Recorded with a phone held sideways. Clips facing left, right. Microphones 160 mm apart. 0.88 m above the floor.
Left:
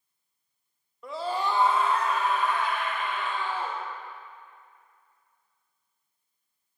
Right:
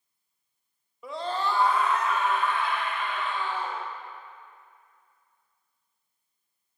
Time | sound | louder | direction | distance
1.0 | a scream | even | 5° right (ahead or behind) | 0.6 m